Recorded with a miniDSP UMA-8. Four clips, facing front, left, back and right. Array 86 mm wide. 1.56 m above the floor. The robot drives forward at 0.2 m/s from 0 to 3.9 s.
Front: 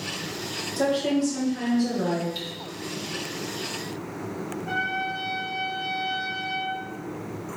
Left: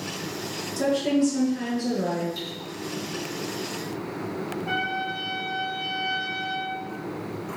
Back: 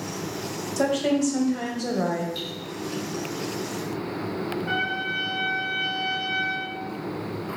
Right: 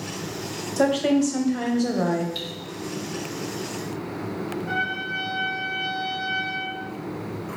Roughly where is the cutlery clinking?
Right.